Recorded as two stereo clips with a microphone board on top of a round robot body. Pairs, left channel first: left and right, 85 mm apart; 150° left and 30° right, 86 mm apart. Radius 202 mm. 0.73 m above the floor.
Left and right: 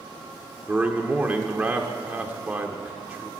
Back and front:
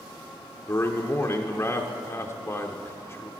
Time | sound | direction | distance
0.7 | a man speaking | 160° right | 0.9 m